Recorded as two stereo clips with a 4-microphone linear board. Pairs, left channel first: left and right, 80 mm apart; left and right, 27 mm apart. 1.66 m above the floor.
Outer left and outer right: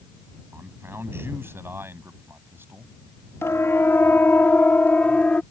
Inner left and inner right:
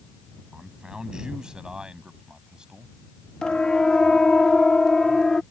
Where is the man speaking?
30° right (ahead or behind).